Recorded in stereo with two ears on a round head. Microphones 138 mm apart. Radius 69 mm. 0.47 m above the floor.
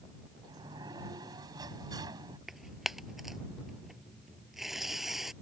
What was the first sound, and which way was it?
A sliding door, 25° right (ahead or behind).